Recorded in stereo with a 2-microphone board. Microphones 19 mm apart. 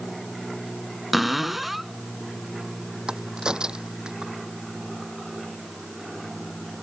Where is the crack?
50° right (ahead or behind).